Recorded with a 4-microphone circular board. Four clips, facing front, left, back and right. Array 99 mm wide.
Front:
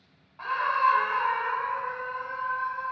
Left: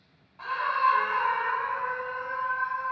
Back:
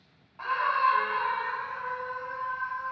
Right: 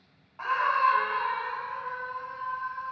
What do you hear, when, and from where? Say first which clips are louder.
0.4 s a scream: right 1 dB, front 1 dB; 95° right, 0.9 m; by 2.9 s 65° left, 1.6 m